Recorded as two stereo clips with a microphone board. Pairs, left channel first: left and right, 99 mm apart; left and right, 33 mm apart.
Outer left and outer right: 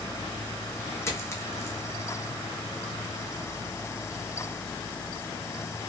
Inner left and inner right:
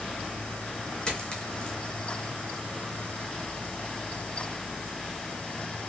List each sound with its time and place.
1.1 s a dropped coin: 25° left (ahead or behind), 1.6 m